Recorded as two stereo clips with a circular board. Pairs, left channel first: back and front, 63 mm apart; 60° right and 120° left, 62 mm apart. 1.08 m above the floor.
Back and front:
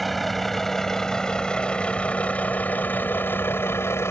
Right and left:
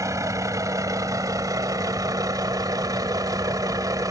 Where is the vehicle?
90° left; by 4.1 s 135° left.